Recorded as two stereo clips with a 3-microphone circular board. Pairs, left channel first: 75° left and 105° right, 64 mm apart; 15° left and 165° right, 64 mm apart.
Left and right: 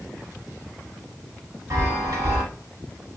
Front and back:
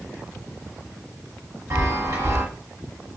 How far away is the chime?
About 1.2 m.